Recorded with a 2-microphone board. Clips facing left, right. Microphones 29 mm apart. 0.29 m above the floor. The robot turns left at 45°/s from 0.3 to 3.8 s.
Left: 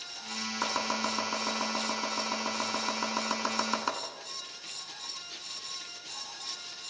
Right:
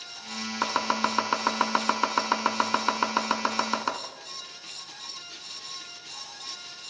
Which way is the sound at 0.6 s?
25° right (ahead or behind).